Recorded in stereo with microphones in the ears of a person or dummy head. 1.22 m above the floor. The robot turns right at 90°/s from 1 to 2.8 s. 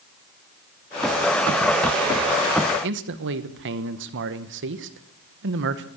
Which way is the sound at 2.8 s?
60° right (ahead or behind).